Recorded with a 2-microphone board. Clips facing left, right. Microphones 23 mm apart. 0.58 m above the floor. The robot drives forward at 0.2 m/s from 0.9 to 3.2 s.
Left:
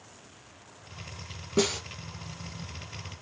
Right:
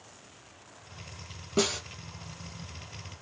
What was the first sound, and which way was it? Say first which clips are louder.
A snare drum: left 1 dB; 5° right (ahead or behind).